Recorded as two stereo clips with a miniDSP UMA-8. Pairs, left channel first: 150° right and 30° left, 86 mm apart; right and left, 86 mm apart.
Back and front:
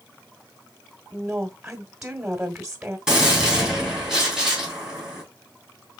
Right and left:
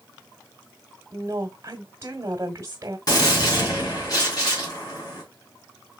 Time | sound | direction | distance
1.1 | a woman speaking | 95° left | 1.1 m
3.1 | a gunshot | 55° right | 2.5 m